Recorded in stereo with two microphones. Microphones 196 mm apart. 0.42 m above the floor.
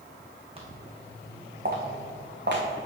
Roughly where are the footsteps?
Right.